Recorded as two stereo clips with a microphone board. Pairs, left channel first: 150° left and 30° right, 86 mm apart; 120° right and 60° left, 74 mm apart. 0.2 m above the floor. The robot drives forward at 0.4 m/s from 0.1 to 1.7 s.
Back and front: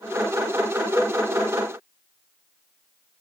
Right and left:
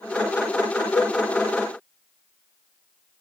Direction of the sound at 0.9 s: 75° right.